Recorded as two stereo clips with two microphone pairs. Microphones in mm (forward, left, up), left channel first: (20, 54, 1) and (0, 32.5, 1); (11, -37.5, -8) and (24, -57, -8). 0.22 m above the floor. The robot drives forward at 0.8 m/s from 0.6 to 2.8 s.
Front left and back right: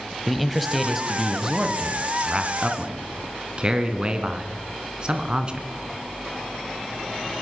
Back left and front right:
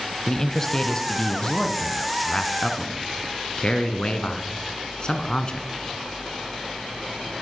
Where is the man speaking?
135° left, 1.2 m; by 5.7 s 170° left, 2.5 m.